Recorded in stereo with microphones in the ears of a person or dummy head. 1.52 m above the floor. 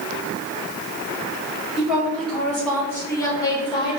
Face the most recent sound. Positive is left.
turn(degrees=35)  # may be behind; listen again after turning